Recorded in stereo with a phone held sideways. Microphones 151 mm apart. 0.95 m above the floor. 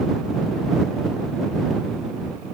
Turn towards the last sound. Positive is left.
No sound to turn to.